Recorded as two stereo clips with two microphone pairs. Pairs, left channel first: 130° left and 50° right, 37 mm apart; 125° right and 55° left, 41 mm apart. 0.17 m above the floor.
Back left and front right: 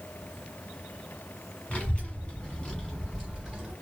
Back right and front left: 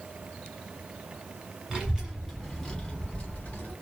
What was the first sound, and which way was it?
A child speaking, 105° left.